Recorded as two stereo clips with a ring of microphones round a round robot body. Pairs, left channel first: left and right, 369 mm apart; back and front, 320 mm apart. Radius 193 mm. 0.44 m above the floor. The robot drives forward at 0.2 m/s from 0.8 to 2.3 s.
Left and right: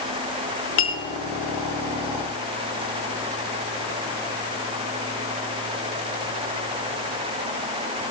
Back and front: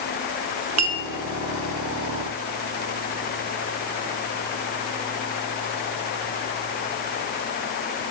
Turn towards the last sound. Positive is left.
turn(degrees=50)